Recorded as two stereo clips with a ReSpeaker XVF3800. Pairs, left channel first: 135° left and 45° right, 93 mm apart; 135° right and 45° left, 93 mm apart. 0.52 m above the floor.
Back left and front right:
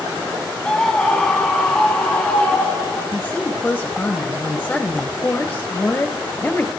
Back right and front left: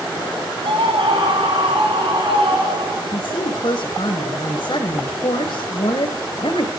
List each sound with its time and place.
0.6 s a scream: 55° left, 4.5 m; by 3.0 s 60° left, 7 m
3.1 s a woman speaking: 160° right, 2.5 m